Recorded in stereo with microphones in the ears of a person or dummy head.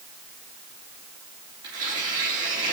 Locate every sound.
1.6 s tearing paper: 20° right (ahead or behind), 3.5 m